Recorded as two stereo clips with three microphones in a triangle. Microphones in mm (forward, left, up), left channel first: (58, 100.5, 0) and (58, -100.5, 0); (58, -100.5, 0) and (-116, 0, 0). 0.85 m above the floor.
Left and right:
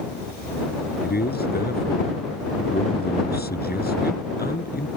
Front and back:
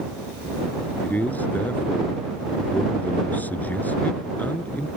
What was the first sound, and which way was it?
A man speaking, 50° left.